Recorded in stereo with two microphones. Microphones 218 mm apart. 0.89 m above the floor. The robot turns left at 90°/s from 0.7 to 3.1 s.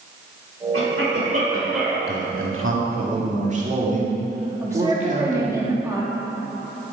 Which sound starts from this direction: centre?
A woman speaking, at 4.6 s.